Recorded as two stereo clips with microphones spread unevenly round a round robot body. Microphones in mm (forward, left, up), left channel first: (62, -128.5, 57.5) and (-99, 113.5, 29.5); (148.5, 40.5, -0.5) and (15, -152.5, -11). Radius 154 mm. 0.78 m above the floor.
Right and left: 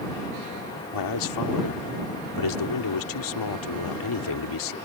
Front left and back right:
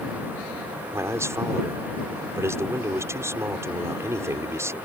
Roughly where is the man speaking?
Ahead right.